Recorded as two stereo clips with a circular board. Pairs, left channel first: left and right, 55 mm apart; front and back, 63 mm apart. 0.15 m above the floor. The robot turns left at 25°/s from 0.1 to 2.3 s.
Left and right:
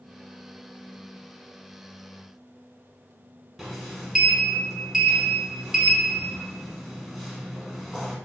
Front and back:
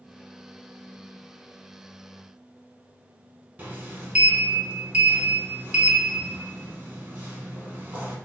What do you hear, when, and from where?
3.6 s a sliding door: 160° right, 0.8 m